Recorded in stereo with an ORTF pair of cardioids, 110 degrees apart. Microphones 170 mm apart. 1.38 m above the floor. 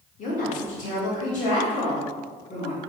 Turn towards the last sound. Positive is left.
turn(degrees=50)